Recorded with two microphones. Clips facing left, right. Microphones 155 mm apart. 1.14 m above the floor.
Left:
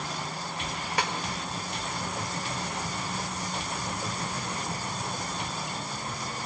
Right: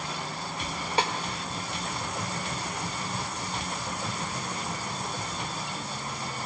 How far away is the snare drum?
About 0.9 m.